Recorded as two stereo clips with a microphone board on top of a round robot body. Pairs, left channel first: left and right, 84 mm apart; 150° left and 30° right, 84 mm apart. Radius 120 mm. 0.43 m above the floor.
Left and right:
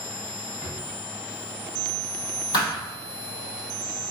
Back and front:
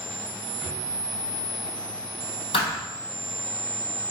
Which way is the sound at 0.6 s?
55° left.